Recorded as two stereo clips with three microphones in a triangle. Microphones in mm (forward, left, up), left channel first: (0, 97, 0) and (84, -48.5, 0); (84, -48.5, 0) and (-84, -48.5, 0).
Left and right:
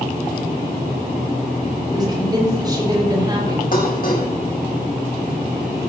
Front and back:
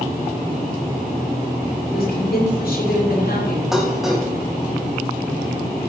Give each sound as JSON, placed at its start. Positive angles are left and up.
{"t": 1.9, "sound": "a woman speaking", "azimuth_deg": 5, "distance_m": 7.5}
{"t": 3.7, "sound": "dishes clattering", "azimuth_deg": 90, "distance_m": 4.0}